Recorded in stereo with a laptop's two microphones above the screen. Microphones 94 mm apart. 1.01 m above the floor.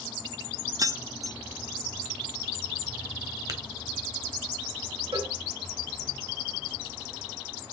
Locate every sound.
0.8 s keys jangling: 40° right (ahead or behind), 0.8 m
3.5 s tapping: 35° right (ahead or behind), 2.0 m
5.1 s a cowbell: 80° right, 4.5 m